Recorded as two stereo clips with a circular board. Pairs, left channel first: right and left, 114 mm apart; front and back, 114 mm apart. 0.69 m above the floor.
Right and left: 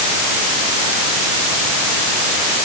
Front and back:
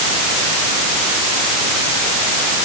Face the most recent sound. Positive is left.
No sound to turn to.